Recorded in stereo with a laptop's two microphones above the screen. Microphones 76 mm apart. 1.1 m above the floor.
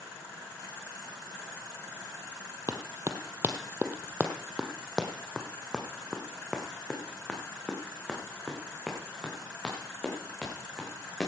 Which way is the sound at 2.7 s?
40° right (ahead or behind).